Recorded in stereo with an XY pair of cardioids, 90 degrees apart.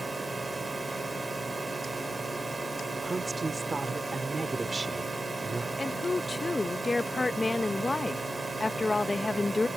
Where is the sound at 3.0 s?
35° right.